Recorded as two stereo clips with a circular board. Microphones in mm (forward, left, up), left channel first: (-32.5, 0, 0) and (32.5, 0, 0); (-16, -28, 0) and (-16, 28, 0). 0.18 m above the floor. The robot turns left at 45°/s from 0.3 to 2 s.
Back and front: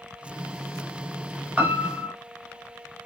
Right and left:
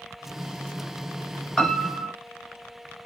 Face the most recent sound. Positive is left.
turn(degrees=-45)